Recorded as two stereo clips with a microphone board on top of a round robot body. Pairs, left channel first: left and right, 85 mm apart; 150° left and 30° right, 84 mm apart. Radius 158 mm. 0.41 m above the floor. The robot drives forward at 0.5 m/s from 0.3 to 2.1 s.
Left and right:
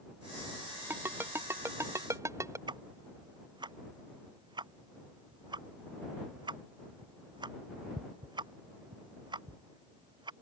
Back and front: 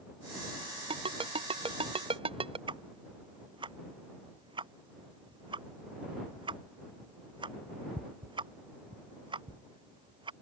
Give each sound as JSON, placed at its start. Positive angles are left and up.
{"t": 0.9, "sound": "a ringtone", "azimuth_deg": -25}
{"t": 2.7, "sound": "ticking", "azimuth_deg": -55}